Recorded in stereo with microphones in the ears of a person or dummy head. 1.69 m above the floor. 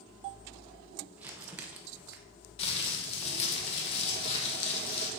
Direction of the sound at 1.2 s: 10° right (ahead or behind).